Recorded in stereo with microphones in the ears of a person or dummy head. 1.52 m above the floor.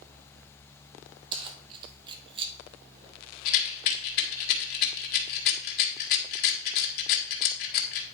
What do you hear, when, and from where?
1.3 s keys jangling: 30° right (ahead or behind), 1.2 m; by 2.5 s 35° right (ahead or behind), 0.7 m
3.5 s a rattle: 55° left (ahead or behind), 1.9 m